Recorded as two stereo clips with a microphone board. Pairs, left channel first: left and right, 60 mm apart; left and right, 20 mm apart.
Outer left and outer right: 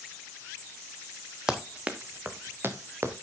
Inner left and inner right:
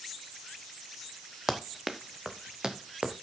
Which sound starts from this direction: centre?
Running footsteps, at 1.5 s.